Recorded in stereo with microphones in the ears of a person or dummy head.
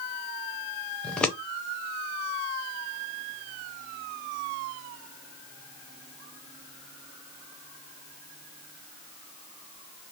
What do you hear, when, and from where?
1.0 s scissors: 10° left (ahead or behind), 0.7 m